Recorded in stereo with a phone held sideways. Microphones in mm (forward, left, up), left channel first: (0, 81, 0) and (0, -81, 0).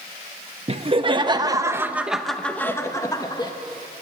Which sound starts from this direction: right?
Laughter, at 0.7 s.